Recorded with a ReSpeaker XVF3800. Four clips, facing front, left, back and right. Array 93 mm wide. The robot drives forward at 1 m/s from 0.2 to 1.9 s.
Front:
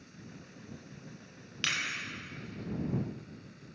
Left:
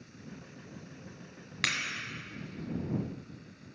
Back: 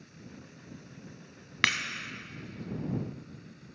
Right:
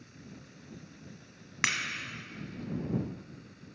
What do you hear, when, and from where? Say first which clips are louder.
1.6 s breaking glass: right 2 dB, back 7 dB; 160° right, 1.1 m; by 1.8 s 165° right, 1.3 m